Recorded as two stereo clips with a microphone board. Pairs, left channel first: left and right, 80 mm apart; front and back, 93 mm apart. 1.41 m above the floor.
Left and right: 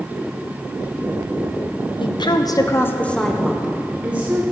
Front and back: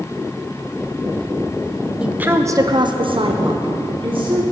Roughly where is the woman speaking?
Left.